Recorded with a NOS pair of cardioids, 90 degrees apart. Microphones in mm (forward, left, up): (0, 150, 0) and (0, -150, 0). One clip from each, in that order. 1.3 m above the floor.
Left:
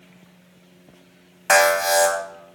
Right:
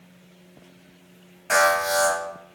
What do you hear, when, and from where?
1.5 s an alarm: 65° left, 1.0 m